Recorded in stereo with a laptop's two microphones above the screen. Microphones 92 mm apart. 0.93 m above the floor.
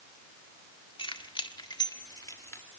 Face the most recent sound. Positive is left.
turn(degrees=30)  # may be behind; listen again after turning